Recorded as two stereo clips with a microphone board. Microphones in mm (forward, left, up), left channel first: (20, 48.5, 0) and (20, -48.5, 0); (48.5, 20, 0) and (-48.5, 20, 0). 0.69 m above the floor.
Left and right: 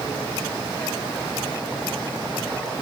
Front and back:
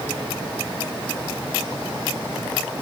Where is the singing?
I don't hear singing.